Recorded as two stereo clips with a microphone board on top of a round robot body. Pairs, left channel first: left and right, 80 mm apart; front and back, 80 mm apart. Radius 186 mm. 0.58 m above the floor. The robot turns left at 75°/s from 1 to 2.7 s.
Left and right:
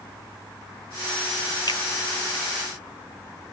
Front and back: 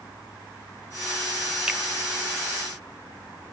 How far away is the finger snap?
About 1.6 m.